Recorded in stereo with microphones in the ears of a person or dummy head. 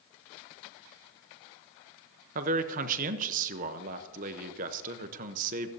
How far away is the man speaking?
About 0.9 m.